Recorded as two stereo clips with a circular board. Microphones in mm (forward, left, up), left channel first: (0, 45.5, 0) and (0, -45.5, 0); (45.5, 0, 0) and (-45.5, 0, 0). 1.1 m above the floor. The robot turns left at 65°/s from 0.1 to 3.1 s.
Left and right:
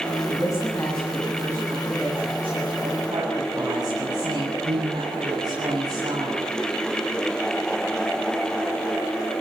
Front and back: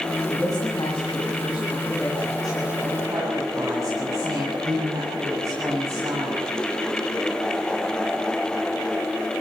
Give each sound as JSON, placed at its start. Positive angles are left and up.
{"t": 0.3, "sound": "a woman speaking", "azimuth_deg": 55, "distance_m": 8.0}